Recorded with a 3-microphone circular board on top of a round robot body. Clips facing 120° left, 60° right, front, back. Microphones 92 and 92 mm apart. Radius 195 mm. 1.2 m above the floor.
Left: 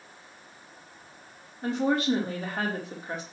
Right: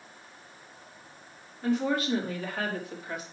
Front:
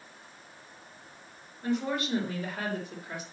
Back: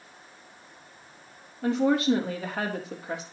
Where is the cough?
I don't hear a cough.